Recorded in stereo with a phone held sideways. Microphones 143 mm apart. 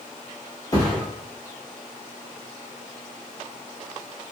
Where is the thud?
25° left (ahead or behind), 0.9 m.